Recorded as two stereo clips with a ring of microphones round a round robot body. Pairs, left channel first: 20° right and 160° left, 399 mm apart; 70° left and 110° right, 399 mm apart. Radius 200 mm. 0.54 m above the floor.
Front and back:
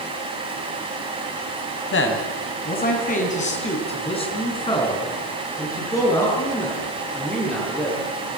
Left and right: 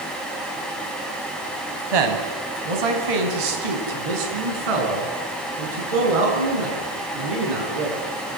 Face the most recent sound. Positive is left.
turn(degrees=-110)